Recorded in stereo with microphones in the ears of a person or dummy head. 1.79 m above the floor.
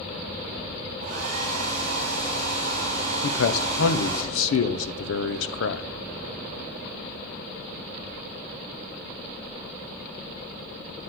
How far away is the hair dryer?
About 3 m.